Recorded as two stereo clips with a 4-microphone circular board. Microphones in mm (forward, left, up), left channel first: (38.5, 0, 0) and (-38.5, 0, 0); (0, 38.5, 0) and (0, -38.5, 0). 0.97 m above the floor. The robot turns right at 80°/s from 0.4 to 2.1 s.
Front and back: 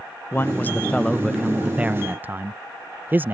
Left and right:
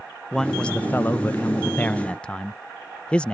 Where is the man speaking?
10° left; by 3.4 s 150° left.